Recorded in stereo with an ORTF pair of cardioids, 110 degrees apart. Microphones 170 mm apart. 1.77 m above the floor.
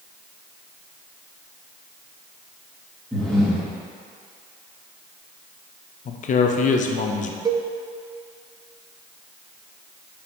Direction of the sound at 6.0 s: 45° left.